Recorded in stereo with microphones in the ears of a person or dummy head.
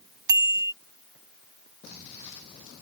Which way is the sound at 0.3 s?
20° right (ahead or behind).